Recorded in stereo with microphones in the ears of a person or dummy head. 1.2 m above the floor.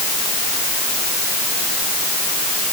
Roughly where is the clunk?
No clunk in this recording.